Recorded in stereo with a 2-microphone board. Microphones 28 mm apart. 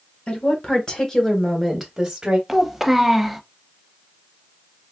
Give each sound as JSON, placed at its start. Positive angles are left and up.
{"t": 0.3, "sound": "a woman speaking", "side_deg": 40, "distance_m": 1.5}
{"t": 2.5, "sound": "a child speaking", "side_deg": -10, "distance_m": 0.6}